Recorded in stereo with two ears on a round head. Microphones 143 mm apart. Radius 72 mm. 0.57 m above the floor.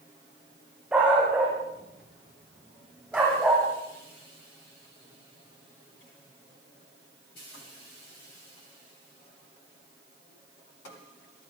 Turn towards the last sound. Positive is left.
turn(degrees=-10)  # may be behind; listen again after turning